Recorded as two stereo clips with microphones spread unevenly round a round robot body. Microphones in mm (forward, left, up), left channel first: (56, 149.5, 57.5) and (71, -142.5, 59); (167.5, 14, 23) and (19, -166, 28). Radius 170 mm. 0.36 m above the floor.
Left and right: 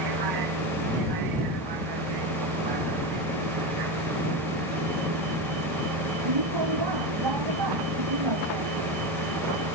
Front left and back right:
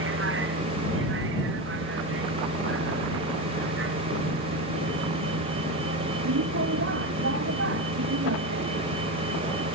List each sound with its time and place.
0.0 s a vehicle: 100° right